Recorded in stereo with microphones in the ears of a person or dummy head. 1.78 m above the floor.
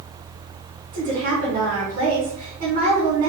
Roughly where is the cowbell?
No cowbell in this recording.